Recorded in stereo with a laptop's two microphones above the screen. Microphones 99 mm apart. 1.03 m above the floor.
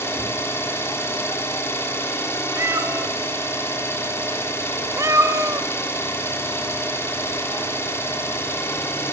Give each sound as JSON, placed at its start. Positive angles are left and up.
{"t": 0.0, "sound": "an engine running", "side_deg": 25, "distance_m": 2.5}
{"t": 2.6, "sound": "a cat meowing", "side_deg": -30, "distance_m": 0.9}